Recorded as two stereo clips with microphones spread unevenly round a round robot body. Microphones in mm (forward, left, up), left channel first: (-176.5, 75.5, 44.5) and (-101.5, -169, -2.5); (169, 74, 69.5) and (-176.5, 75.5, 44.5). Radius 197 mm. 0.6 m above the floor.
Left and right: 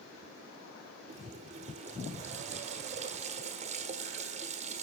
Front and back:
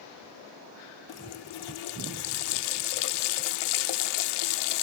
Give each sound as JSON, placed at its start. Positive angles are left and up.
{"t": 1.1, "sound": "a running tap", "azimuth_deg": -5, "distance_m": 1.0}